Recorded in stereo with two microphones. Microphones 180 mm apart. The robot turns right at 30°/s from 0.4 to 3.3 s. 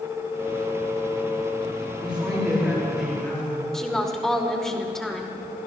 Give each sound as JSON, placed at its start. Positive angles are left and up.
{"t": 2.0, "sound": "a man speaking", "azimuth_deg": -20, "distance_m": 6.0}
{"t": 3.7, "sound": "a woman speaking", "side_deg": 5, "distance_m": 1.6}